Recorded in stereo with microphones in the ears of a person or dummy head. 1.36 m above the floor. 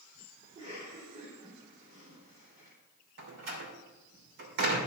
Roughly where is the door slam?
Right.